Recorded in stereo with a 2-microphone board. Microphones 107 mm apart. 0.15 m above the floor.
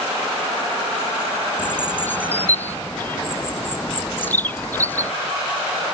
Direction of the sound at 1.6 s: 15° left (ahead or behind).